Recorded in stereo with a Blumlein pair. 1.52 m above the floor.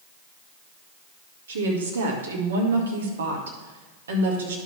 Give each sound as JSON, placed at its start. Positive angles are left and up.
{"t": 1.5, "sound": "a woman speaking", "azimuth_deg": -65, "distance_m": 2.0}